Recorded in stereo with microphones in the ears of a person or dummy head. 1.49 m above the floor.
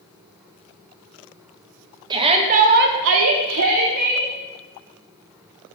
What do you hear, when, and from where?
2.1 s a shout: 25° right (ahead or behind), 1.4 m; by 4.3 s 55° right (ahead or behind), 1.7 m